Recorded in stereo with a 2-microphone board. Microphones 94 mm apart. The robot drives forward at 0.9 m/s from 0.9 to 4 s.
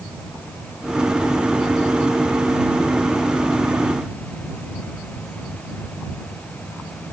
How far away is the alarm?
No alarm in this recording.